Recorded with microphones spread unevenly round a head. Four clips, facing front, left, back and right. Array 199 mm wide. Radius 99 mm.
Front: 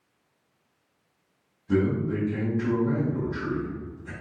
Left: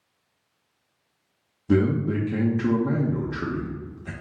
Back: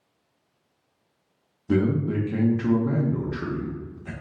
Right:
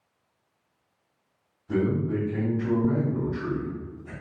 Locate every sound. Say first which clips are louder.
1.7 s a man speaking: left 4 dB, back 2 dB; 105° left, 0.7 m